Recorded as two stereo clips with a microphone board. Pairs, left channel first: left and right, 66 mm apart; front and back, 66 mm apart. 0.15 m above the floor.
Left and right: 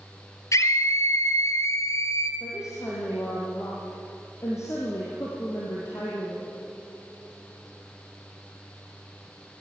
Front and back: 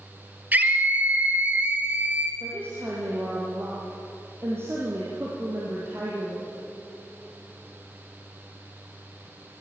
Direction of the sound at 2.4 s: 130° left.